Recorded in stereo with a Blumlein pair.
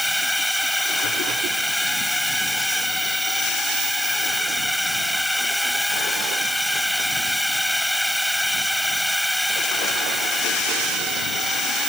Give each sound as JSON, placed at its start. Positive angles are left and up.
{"t": 0.0, "sound": "a drone", "azimuth_deg": 0}